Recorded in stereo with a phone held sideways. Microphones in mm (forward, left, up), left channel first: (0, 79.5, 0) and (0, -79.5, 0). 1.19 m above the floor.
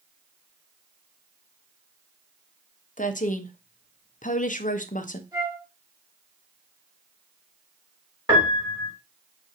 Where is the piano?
30° right (ahead or behind), 3 m.